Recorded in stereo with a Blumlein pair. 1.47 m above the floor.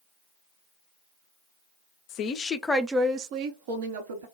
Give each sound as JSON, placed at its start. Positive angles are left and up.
{"t": 2.1, "sound": "a woman speaking", "azimuth_deg": 40, "distance_m": 0.7}